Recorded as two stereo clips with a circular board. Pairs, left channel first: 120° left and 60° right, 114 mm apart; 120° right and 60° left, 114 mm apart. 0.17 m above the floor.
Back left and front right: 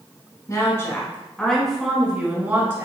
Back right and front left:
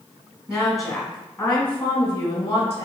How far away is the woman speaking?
About 1.2 m.